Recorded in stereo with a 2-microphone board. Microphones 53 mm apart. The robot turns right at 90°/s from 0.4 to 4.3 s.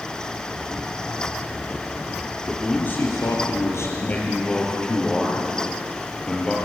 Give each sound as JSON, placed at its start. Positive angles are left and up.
{"t": 2.5, "sound": "a man speaking", "azimuth_deg": 0, "distance_m": 7.5}